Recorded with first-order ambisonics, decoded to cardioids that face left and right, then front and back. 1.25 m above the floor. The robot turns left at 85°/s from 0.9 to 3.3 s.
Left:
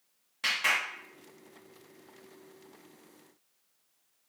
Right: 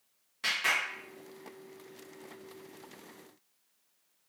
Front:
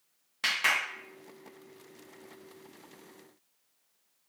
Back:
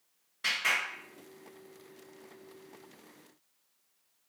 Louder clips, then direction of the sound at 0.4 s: Left 1 dB, front 2 dB; 10° left.